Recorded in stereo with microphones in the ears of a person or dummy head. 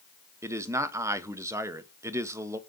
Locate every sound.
0.4 s a man speaking: 15° right (ahead or behind), 0.9 m